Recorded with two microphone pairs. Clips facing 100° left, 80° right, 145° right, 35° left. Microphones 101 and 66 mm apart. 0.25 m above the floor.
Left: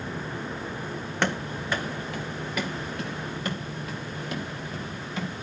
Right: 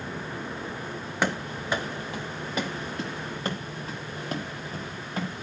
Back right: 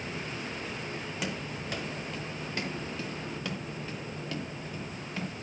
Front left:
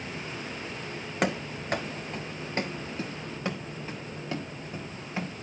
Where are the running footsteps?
5° left, 1.1 m; by 5.3 s 30° right, 4 m.